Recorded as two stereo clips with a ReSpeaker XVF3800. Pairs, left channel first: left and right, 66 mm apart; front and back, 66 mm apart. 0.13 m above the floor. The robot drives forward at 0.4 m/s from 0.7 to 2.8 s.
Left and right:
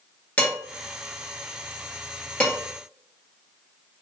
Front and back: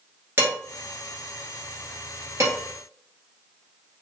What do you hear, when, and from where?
0.4 s dishes clattering: 150° left, 1.3 m; by 2.6 s 160° left, 1.9 m